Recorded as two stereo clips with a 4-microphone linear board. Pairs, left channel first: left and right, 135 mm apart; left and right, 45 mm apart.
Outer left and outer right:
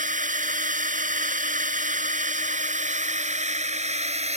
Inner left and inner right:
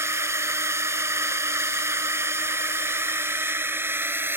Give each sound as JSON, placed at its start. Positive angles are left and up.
{"t": 0.0, "sound": "a drone", "side_deg": -70}